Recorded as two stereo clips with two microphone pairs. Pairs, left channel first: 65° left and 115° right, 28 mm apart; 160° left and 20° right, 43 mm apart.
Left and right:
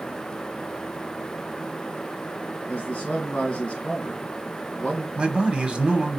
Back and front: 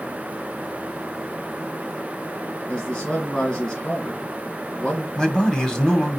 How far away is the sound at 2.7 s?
About 3 m.